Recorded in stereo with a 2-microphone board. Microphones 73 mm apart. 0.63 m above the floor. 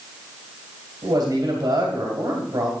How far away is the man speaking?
About 2.0 m.